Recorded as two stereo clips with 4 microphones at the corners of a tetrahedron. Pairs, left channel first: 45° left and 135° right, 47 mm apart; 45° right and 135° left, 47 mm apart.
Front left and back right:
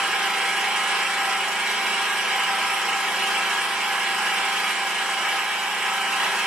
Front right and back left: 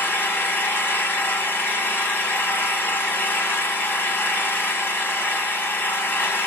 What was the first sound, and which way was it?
An engine running, 55° right.